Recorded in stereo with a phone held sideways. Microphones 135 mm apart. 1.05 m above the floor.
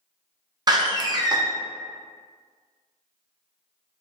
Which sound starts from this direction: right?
A door slam, at 0.7 s.